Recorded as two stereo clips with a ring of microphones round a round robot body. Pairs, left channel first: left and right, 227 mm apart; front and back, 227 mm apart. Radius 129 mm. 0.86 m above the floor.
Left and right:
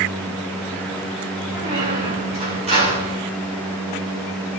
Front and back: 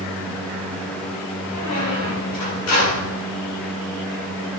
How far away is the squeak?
About 8 m.